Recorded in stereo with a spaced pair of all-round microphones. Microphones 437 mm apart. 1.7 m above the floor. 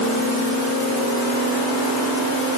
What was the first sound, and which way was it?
Only background noise.